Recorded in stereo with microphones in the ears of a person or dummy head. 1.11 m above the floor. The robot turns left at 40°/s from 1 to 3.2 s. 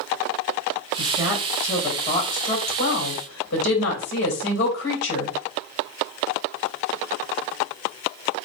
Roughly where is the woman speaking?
Behind.